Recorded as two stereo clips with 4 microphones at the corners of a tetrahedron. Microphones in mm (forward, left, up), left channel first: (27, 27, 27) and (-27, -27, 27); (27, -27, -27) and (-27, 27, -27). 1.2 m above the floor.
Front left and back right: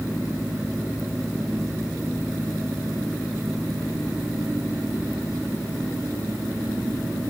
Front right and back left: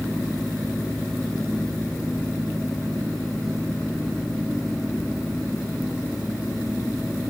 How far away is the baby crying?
I don't hear a baby crying.